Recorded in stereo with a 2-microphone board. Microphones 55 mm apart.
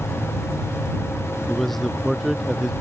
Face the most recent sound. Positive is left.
turn(degrees=-5)  # may be behind; listen again after turning